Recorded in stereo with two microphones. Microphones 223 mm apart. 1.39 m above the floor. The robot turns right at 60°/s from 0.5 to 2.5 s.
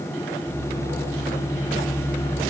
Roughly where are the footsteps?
I don't hear footsteps.